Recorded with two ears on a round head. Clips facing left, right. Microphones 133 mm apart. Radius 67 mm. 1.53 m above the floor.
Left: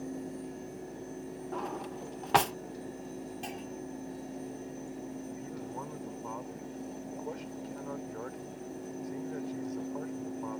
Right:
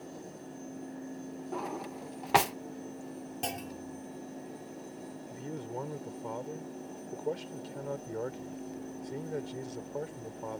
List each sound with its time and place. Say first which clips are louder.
1.5 s a drawer: even; 5° right (ahead or behind)
3.4 s a clunk: right 1 dB; 65° right (ahead or behind)
5.3 s a man speaking: right 1 dB; 40° right (ahead or behind)